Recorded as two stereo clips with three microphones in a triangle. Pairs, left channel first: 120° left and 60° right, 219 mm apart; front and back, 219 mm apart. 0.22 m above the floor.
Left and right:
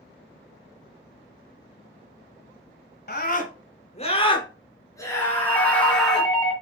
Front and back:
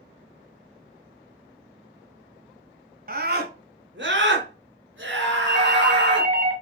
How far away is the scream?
About 1.8 m.